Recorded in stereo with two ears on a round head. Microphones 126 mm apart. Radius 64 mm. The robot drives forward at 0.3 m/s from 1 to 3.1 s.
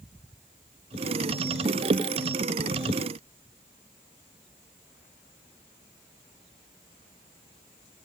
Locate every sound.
Only background noise.